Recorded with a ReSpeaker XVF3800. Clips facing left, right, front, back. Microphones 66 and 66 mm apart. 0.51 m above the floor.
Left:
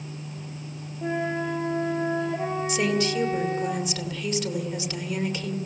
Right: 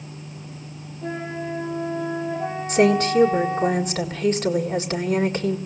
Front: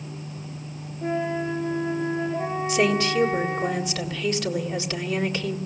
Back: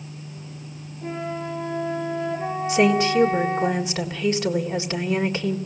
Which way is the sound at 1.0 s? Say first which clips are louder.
Left 2 dB, front 4 dB; 65° left.